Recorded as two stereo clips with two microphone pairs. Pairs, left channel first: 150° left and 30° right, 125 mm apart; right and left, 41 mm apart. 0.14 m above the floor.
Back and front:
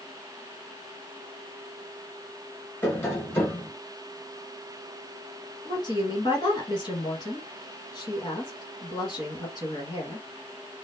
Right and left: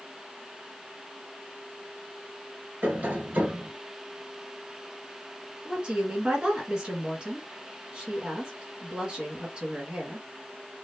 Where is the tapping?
85° left, 1.4 m.